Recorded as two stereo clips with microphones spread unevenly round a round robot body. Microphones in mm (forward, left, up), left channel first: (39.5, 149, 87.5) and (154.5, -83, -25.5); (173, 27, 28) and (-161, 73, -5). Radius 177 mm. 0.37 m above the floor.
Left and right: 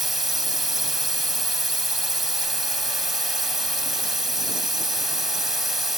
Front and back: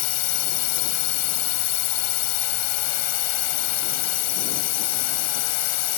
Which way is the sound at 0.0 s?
10° left.